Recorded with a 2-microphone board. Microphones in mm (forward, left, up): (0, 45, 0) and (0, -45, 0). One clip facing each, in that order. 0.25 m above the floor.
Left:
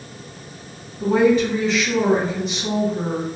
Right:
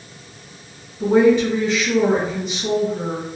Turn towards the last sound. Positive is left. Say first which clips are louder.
# right 2 dB
turn(degrees=5)  # may be behind; listen again after turning